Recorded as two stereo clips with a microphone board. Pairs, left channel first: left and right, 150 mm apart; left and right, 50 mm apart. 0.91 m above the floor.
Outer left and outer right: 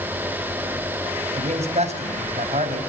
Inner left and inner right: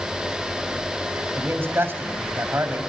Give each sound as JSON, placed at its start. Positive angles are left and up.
{"t": 1.4, "sound": "a man speaking", "side_deg": -50, "distance_m": 5.0}